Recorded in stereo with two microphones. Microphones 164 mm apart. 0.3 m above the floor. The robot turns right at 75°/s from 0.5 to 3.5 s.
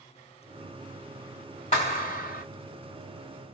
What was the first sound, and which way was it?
A clap, 45° left.